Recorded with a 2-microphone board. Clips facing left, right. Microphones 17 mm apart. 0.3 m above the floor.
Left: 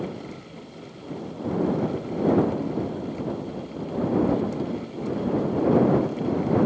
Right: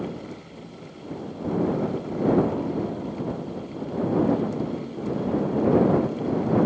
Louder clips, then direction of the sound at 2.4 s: Even; 30° right (ahead or behind).